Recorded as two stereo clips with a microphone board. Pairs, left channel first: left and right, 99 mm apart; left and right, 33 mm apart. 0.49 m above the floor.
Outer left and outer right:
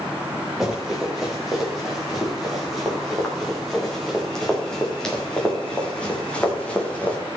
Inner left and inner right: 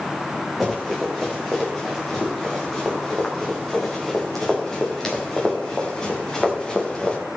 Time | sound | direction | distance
0.6 | running footsteps | centre (ahead or behind) | 7 m